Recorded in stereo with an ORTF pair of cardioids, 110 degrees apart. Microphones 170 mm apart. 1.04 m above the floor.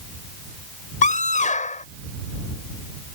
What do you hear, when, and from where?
1.0 s a scream: 50° left